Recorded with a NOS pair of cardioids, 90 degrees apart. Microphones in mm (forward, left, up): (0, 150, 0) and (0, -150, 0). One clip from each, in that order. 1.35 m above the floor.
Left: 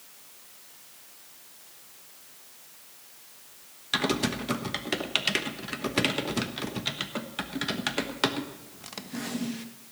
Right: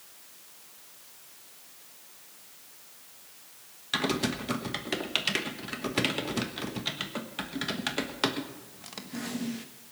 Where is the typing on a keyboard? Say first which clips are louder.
Left 2 dB; 5° left, 1.2 m.